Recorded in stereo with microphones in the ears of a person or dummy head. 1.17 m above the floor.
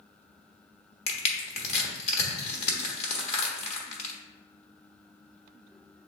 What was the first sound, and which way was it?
Crushing, 40° left (ahead or behind).